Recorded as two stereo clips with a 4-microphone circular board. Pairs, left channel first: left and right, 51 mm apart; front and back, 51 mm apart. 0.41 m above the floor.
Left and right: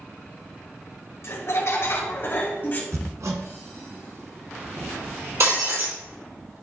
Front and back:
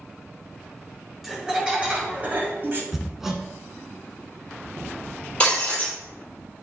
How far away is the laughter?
About 2.5 m.